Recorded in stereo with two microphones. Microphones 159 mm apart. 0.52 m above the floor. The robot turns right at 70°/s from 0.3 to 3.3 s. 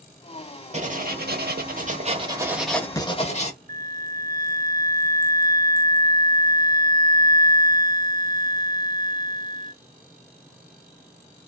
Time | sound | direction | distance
0.7 | writing | 135° right | 0.7 m
3.7 | a flute | 50° right (ahead or behind) | 0.6 m